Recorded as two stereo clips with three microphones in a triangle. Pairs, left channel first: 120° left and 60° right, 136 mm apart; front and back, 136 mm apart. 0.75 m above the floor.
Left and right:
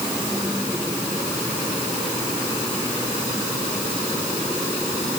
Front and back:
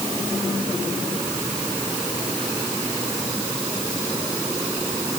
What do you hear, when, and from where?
Only background noise.